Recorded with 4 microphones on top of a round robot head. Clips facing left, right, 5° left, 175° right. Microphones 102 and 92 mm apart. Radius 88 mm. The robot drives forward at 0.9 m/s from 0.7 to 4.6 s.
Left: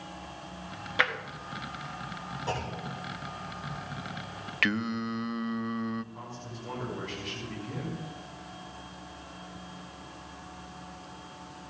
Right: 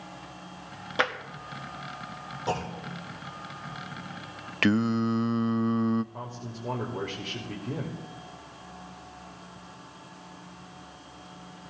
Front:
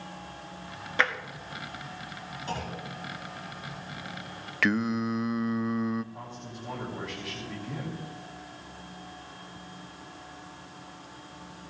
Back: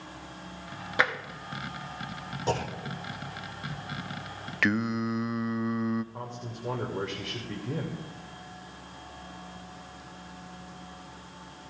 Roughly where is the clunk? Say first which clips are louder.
Right 4 dB, back 6 dB; behind.